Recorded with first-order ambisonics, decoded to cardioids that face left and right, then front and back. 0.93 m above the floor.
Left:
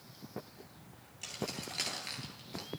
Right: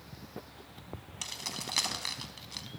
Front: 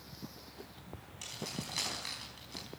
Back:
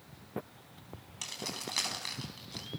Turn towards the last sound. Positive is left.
turn(degrees=-90)